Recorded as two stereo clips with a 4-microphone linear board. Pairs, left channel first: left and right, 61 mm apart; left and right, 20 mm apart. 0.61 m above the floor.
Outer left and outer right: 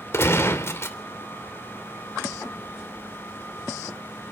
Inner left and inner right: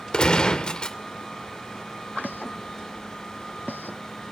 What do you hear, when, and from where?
0.1 s a gunshot: 45° left (ahead or behind), 2.5 m